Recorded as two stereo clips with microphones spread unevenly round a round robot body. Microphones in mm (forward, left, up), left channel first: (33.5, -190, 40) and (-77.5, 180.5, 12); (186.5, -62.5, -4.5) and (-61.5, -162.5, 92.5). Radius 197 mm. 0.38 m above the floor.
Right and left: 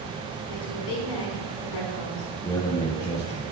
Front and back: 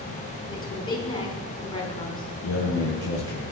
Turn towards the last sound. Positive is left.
turn(degrees=5)